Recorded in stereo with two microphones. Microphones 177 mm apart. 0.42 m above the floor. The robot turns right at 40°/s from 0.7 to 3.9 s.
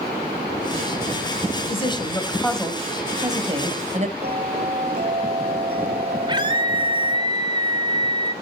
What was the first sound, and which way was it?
A woman speaking, 135° left.